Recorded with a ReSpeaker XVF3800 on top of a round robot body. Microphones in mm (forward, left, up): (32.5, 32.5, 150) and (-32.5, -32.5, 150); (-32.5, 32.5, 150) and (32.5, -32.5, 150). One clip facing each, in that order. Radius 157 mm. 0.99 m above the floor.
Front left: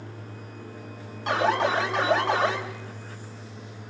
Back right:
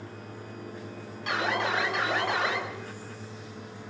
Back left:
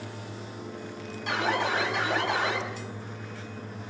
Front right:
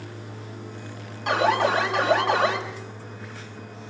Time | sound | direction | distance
1.3 | an alarm | 10° right | 4.5 m